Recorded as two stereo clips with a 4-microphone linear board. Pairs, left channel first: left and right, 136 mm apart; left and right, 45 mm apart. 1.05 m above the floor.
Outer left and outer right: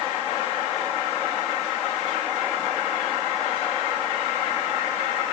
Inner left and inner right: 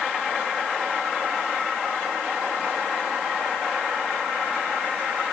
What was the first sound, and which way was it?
Only background noise.